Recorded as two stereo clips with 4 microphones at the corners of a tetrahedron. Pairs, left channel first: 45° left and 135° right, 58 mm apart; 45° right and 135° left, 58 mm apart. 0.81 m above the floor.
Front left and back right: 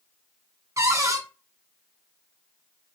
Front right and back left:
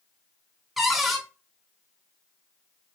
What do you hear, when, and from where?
0.8 s a cupboard door: 140° right, 0.9 m